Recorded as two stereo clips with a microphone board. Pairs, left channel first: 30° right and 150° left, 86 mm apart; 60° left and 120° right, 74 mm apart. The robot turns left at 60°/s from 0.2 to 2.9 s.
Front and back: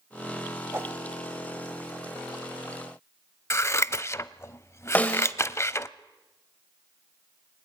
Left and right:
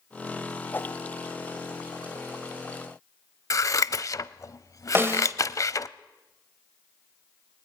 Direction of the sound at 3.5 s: 25° left.